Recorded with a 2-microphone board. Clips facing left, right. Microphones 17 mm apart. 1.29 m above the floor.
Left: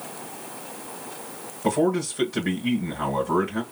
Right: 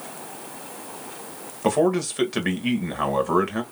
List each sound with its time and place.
1.6 s a man speaking: 55° right (ahead or behind), 1.4 m